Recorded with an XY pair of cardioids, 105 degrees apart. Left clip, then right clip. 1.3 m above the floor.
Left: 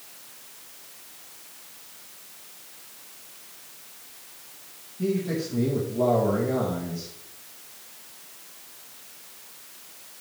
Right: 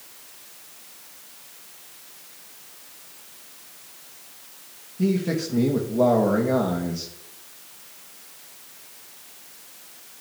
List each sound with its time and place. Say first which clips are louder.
5.0 s a man speaking: right 2 dB; 55° right, 2 m